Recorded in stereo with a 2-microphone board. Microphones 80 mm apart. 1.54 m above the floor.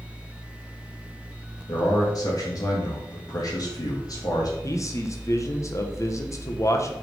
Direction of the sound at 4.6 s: 40° left (ahead or behind).